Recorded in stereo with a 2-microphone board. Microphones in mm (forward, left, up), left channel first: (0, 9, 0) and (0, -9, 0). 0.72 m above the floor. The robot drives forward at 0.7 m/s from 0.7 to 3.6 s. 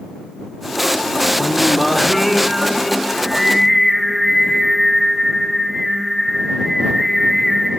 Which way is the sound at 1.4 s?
5° left (ahead or behind).